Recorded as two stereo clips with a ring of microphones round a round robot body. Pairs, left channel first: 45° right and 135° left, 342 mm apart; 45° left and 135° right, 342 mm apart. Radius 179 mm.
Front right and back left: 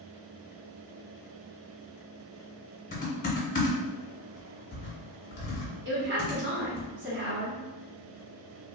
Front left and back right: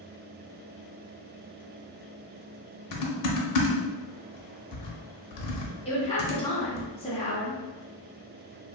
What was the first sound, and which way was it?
Typing on a keyboard, 20° left.